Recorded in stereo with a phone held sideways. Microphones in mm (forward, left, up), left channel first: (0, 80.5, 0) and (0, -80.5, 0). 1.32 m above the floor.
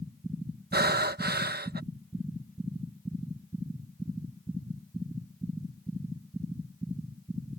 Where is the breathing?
80° right.